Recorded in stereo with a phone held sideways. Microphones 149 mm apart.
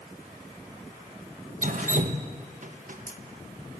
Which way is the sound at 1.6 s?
60° right (ahead or behind).